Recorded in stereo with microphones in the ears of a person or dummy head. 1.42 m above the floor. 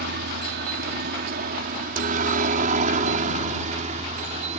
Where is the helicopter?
60° right (ahead or behind); by 4.6 s 35° right (ahead or behind).